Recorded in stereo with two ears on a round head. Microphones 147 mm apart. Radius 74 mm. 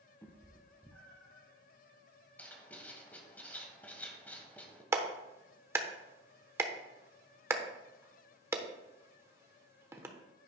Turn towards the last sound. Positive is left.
turn(degrees=-15)  # may be behind; listen again after turning